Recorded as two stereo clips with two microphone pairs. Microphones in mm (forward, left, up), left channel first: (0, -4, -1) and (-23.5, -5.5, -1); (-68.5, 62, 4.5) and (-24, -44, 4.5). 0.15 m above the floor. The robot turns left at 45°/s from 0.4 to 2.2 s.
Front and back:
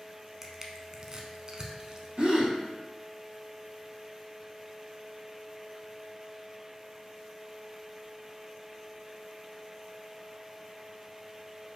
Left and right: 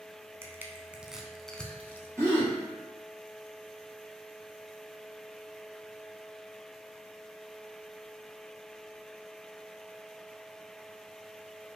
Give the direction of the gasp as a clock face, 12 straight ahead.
4 o'clock.